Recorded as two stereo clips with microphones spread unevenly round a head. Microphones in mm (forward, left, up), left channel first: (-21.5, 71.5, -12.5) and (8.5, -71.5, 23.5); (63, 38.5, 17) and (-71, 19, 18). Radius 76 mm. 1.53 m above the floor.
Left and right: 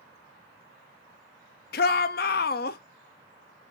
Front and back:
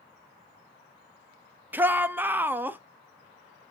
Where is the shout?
110° left, 0.7 m.